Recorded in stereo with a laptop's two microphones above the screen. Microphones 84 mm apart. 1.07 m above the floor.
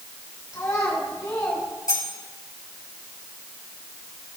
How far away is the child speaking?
About 4.5 m.